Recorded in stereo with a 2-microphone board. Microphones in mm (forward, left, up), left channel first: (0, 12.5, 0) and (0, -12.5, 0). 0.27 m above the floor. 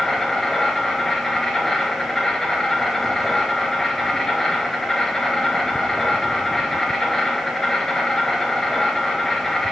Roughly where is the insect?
Left.